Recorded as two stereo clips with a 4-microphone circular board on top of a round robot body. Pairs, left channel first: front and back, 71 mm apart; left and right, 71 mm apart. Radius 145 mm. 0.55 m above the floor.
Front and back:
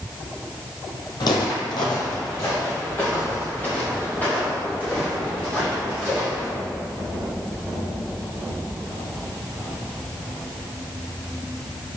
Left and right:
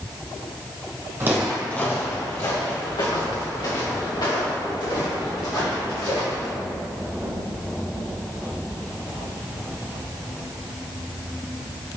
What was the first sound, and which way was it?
Footsteps, 30° right.